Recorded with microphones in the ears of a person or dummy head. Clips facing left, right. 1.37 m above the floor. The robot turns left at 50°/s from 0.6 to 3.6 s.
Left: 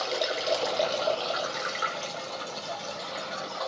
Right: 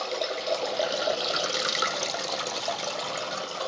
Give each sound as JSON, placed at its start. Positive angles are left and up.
{"t": 0.0, "sound": "running water", "azimuth_deg": 5, "distance_m": 0.8}